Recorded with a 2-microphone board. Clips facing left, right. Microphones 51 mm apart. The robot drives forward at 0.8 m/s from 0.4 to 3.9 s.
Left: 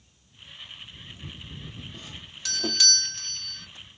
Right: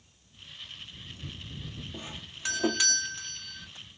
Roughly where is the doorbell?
Right.